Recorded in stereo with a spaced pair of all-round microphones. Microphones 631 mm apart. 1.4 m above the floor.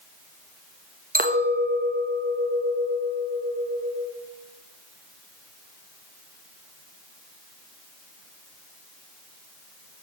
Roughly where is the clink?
Centre.